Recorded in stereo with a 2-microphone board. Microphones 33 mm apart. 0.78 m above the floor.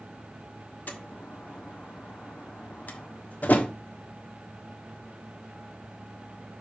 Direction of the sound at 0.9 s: 55° left (ahead or behind).